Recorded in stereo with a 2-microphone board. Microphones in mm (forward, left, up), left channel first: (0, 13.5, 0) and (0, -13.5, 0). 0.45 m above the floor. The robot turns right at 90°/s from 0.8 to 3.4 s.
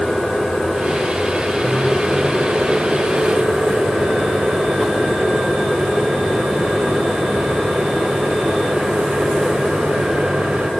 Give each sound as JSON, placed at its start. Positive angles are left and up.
{"t": 1.6, "sound": "a microwave", "azimuth_deg": 130, "distance_m": 1.4}